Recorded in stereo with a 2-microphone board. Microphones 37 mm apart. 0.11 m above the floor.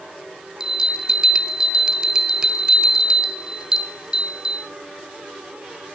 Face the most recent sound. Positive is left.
turn(degrees=-20)  # may be behind; listen again after turning